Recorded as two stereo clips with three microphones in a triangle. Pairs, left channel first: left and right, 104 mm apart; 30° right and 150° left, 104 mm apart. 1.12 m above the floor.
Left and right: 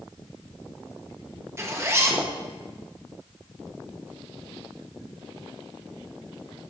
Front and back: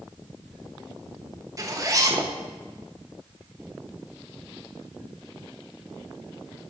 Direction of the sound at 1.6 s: 155° right.